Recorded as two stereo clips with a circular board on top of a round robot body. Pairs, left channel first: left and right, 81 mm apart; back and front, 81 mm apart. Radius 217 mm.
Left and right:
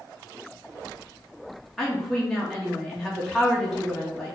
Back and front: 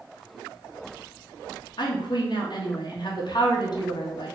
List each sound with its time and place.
1.8 s a woman speaking: straight behind, 1.2 m